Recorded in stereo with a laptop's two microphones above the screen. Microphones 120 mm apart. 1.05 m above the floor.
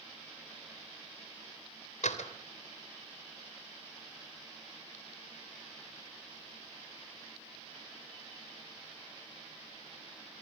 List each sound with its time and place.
2.0 s a door slam: 80° left, 3 m